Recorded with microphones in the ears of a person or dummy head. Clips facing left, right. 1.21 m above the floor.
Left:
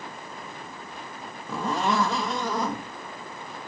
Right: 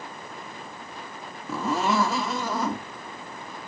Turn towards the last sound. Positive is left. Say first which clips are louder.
# right 1 dB
turn(degrees=-5)  # may be behind; listen again after turning